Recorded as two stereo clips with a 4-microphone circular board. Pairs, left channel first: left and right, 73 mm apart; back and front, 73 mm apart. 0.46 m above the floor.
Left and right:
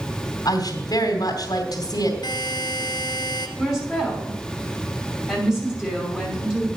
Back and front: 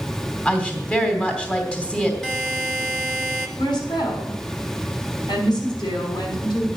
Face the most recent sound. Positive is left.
turn(degrees=-170)